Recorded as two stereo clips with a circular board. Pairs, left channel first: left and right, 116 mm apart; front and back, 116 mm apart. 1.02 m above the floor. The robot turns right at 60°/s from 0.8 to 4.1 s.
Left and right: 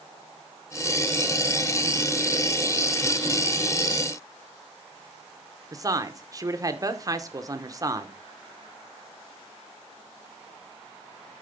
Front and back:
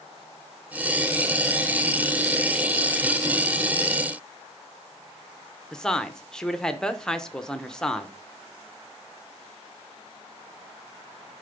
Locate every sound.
5.7 s a woman speaking: 80° right, 0.8 m